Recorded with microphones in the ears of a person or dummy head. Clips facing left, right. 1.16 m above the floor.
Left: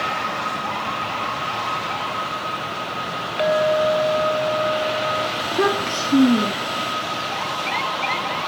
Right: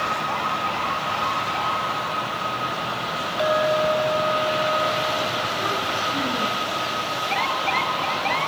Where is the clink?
30° left (ahead or behind), 1.4 m.